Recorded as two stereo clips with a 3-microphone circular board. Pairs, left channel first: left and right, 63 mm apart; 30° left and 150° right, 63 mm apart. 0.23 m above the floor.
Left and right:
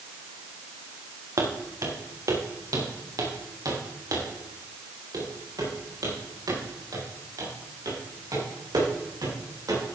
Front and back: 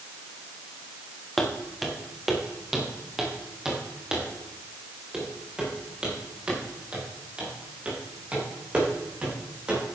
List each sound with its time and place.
1.4 s footsteps: 55° right, 3 m; by 9.8 s 80° right, 9 m